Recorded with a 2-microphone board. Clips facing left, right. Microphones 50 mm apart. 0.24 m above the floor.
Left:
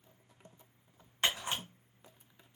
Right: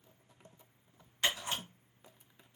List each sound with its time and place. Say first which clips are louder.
1.2 s a camera shutter: left 1 dB; 35° left (ahead or behind), 1.6 m